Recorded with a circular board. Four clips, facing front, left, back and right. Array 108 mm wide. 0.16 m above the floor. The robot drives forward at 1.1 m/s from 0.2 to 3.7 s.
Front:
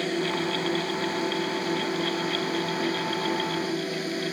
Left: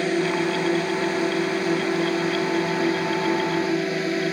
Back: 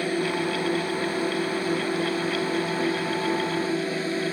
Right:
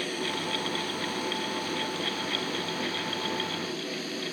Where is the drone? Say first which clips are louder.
Left 11 dB, back 2 dB; 100° left; by 4.3 s 105° left.